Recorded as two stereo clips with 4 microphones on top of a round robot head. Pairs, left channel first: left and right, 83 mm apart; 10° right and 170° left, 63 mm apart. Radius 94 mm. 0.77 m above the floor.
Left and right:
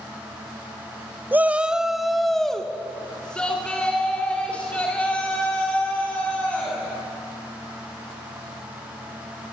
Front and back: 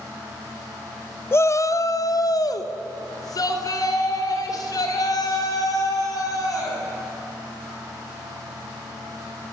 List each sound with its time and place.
1.3 s a shout: 35° right, 0.8 m; by 6.8 s 15° left, 7 m